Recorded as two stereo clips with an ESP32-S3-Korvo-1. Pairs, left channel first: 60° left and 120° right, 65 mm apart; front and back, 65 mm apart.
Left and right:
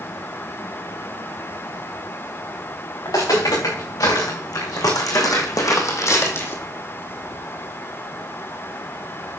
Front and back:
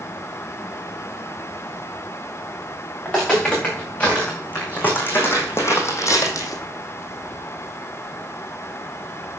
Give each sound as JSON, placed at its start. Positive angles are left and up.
{"t": 3.0, "sound": "footsteps", "azimuth_deg": 75, "distance_m": 5.0}